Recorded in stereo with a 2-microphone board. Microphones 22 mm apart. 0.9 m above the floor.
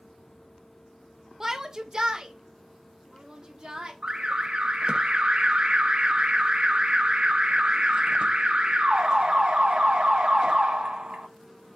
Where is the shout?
20° right (ahead or behind), 0.9 m; by 3.9 s 45° right (ahead or behind), 2.5 m.